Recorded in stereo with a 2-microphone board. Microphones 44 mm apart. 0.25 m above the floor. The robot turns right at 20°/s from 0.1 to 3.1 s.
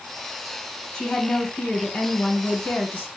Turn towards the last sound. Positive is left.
turn(degrees=60)